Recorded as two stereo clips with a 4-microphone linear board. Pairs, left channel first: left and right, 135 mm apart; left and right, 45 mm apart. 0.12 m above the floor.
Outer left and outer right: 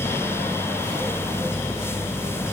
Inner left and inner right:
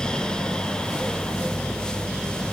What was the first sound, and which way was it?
Only background noise.